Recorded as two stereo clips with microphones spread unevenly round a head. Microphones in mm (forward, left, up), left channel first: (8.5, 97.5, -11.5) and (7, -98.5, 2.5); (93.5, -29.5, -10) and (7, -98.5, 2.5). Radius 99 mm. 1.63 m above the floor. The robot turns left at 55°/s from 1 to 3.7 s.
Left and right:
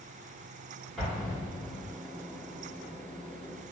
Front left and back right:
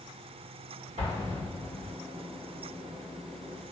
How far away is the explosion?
About 1.8 m.